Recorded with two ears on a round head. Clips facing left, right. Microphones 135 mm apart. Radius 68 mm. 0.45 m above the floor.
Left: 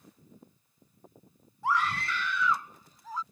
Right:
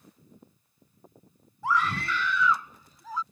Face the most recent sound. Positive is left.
turn(degrees=-70)  # may be behind; listen again after turning